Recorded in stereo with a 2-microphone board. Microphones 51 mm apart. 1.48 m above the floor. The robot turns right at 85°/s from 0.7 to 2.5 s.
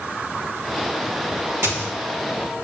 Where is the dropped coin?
55° right (ahead or behind), 1.7 m; by 1.9 s 50° right (ahead or behind), 1.7 m.